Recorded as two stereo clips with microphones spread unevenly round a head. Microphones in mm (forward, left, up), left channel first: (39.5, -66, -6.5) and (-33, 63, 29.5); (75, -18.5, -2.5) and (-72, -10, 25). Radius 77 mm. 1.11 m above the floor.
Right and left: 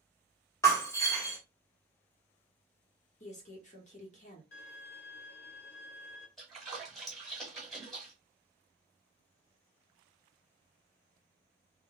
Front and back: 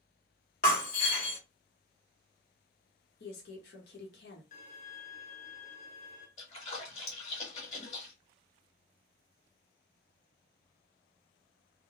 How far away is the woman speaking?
About 1.1 m.